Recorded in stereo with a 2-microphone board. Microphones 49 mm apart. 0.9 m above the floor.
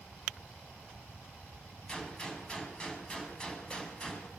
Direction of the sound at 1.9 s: 20° left (ahead or behind).